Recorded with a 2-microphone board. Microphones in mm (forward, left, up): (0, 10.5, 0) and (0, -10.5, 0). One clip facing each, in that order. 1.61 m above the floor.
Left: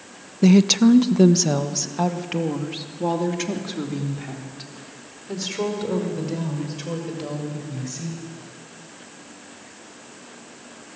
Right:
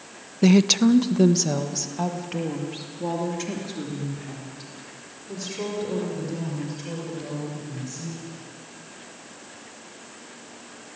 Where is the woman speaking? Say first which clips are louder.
Left 2 dB; 10° right (ahead or behind), 0.6 m; by 8.2 s 30° left (ahead or behind), 7.5 m.